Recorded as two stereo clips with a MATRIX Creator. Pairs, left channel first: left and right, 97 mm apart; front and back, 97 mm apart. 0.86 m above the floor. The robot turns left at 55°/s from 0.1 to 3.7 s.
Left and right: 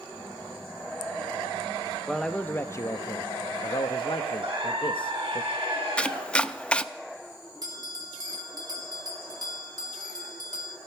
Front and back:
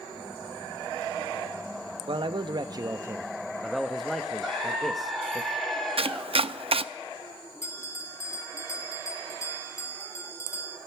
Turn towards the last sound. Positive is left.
turn(degrees=-50)